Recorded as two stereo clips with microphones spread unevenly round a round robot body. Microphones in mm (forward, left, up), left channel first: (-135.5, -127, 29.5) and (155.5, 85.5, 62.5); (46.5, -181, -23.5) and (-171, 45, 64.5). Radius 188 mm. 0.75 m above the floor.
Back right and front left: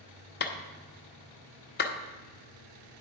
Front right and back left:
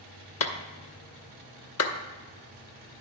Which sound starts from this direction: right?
A clap, at 0.4 s.